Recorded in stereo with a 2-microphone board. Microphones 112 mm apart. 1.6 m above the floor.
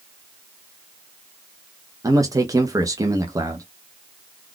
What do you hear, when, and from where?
2.0 s a man speaking: 30° right (ahead or behind), 0.7 m